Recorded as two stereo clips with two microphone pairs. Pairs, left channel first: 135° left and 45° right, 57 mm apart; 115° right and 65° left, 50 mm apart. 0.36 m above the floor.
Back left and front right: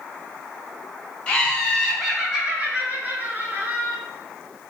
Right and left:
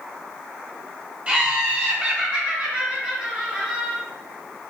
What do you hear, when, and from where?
1.3 s laughter: 85° left, 1.2 m; by 4.0 s 5° right, 1.9 m